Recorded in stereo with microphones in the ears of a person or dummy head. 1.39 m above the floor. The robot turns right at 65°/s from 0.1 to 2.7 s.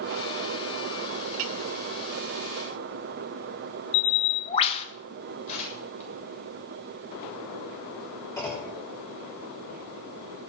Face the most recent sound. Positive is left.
turn(degrees=20)  # may be behind; listen again after turning